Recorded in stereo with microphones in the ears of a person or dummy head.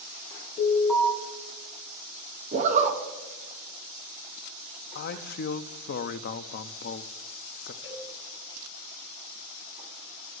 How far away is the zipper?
About 0.8 m.